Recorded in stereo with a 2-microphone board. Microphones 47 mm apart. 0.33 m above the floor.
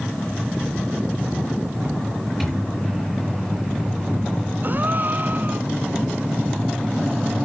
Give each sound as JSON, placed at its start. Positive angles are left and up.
{"t": 2.4, "sound": "a microwave", "side_deg": -5, "distance_m": 6.5}
{"t": 4.6, "sound": "a gasp", "side_deg": -45, "distance_m": 0.7}